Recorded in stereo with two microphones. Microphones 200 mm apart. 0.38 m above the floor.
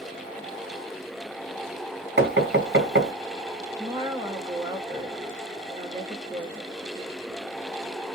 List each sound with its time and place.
2.2 s knocking: 60° right (ahead or behind), 2 m
3.8 s a woman speaking: 20° right (ahead or behind), 0.8 m